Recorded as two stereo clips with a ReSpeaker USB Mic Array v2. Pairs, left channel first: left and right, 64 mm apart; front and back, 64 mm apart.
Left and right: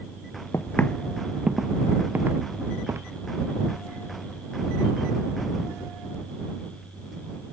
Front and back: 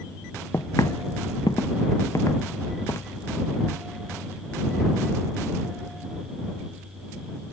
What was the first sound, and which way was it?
Footsteps, 50° left.